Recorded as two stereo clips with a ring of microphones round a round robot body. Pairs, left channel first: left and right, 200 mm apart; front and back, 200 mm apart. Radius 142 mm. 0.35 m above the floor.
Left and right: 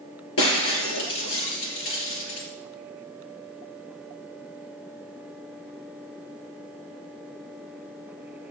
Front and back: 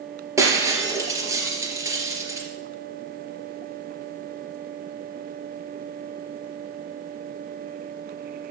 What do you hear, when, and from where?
0.4 s breaking glass: 105° left, 4 m